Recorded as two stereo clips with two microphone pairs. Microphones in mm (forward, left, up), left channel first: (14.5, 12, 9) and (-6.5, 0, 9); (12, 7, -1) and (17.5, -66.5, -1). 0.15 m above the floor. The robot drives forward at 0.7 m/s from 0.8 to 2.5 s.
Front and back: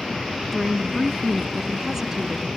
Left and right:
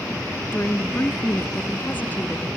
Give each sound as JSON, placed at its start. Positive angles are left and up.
{"t": 0.5, "sound": "a woman speaking", "azimuth_deg": 90, "distance_m": 1.2}